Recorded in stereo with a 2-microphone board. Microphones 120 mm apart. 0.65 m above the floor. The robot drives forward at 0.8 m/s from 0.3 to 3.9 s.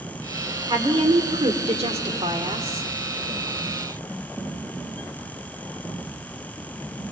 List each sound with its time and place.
0.7 s a woman speaking: 50° right (ahead or behind), 2.5 m; by 2.9 s 60° right (ahead or behind), 2.5 m